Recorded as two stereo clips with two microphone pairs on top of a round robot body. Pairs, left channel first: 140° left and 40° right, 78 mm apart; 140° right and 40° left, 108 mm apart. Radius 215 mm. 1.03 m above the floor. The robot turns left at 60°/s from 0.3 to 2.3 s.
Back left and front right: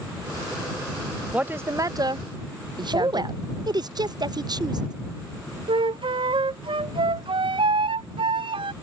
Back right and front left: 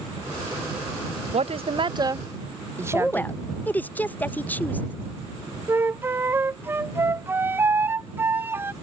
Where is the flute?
30° right.